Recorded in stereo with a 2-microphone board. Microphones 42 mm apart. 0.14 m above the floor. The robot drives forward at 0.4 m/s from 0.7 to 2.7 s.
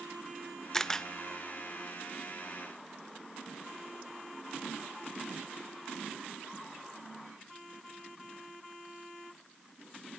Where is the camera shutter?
10° left (ahead or behind), 0.7 m; by 1.1 s 15° left (ahead or behind), 0.6 m.